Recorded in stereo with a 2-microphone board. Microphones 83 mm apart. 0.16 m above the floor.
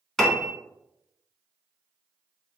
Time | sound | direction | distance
0.2 | a piano | 5° left (ahead or behind) | 0.6 m